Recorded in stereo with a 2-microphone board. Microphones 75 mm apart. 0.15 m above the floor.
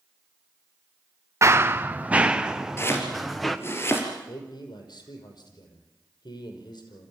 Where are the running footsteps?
40° right (ahead or behind), 0.9 m; by 3.6 s centre (ahead or behind), 2 m.